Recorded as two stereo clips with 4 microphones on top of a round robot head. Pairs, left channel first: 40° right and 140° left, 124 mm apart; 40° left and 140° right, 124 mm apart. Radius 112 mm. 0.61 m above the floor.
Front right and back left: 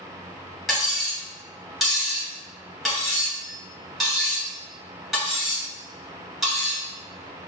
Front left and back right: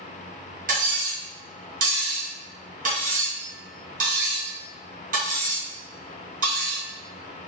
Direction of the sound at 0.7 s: 135° right.